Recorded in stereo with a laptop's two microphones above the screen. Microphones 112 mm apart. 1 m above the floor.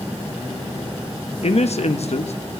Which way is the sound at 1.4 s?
70° left (ahead or behind).